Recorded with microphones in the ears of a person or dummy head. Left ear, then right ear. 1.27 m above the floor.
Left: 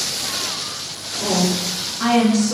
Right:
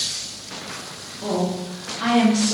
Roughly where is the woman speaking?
Left.